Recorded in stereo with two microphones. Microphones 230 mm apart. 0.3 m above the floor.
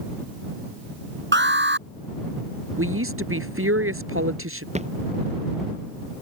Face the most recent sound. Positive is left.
turn(degrees=-30)  # may be behind; listen again after turning